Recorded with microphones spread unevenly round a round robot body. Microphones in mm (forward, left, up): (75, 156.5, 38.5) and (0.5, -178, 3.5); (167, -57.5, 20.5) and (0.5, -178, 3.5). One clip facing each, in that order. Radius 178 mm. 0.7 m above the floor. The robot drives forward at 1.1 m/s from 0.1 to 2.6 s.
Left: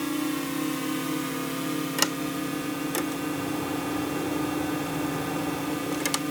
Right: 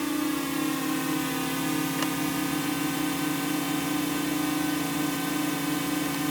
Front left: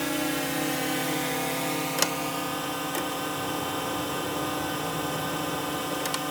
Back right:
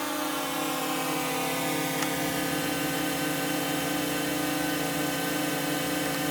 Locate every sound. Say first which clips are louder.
0.0 s a drone: right 1 dB, front left 3 dB; 20° right; by 6.3 s 140° right
2.0 s a sliding door: right 1 dB, back right 1 dB; 55° left; by 6.2 s 75° left